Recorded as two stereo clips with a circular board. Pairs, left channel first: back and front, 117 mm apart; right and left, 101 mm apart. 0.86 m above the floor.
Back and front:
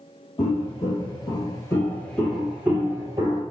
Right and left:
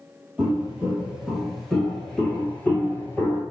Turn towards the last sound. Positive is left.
turn(degrees=-35)